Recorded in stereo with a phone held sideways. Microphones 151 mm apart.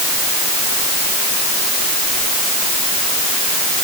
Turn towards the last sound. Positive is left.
No sound to turn to.